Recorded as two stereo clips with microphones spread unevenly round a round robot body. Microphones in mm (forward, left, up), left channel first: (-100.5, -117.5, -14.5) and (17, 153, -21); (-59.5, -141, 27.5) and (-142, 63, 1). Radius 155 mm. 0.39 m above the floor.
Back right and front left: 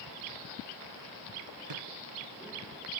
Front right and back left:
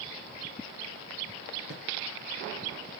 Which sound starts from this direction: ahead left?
A drawer, at 1.7 s.